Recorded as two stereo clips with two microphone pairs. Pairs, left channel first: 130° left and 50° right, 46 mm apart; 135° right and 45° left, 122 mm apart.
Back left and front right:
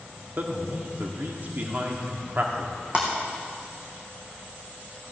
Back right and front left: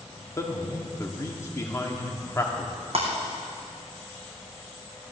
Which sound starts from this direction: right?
A man speaking, at 0.4 s.